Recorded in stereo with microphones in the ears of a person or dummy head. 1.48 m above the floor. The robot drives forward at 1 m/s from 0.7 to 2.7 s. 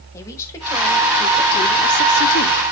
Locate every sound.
0.1 s a woman speaking: 15° left (ahead or behind), 1.7 m; by 2.6 s 55° left (ahead or behind), 0.6 m